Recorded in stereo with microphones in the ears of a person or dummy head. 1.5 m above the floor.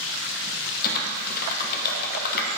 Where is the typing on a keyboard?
55° left (ahead or behind), 0.9 m.